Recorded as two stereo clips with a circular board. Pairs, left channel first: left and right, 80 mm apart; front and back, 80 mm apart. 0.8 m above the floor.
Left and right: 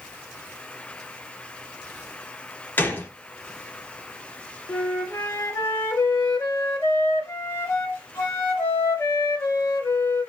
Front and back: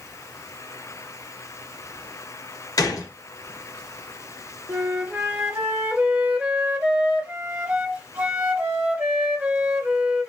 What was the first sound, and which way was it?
A gunshot, 30° left.